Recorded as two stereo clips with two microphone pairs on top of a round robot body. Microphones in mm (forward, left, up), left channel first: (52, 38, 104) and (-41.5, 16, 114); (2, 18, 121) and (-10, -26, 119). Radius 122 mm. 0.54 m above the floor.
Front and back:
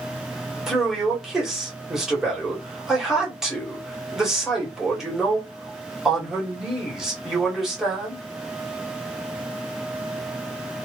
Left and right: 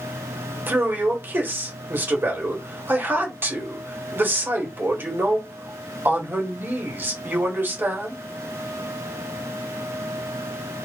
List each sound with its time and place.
0.7 s a man speaking: 80° right, 1.5 m